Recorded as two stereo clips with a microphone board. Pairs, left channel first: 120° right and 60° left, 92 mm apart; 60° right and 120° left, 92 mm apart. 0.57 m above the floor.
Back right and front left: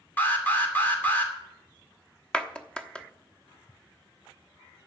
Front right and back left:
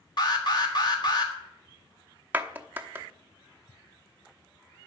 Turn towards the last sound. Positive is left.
turn(degrees=170)